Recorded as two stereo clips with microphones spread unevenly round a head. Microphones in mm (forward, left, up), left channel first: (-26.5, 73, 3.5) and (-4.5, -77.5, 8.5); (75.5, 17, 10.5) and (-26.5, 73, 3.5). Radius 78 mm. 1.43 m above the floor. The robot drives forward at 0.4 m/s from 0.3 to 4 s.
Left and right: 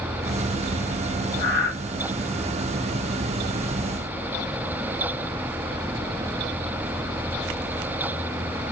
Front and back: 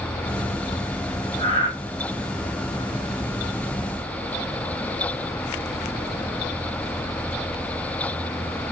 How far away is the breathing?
About 2.0 m.